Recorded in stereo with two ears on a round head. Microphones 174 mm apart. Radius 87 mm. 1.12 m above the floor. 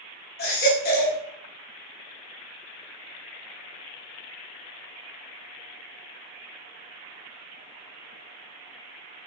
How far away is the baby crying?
About 2.5 m.